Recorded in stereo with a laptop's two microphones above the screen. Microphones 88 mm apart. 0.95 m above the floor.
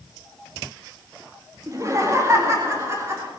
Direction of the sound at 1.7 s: 40° right (ahead or behind).